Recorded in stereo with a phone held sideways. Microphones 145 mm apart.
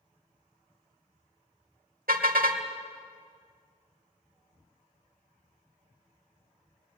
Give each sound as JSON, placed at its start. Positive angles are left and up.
{"t": 2.1, "sound": "a car horn", "side_deg": -90, "distance_m": 2.0}